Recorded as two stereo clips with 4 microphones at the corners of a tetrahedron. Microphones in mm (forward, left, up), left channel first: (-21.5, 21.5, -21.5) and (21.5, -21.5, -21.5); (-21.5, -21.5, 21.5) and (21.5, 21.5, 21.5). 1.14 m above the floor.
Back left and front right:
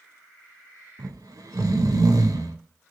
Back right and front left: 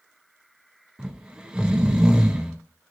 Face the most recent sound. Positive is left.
turn(degrees=-30)